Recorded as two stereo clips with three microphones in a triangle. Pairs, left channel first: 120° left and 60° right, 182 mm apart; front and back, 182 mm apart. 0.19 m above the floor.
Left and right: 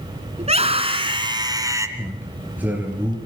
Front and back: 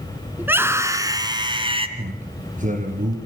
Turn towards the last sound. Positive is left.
turn(degrees=-140)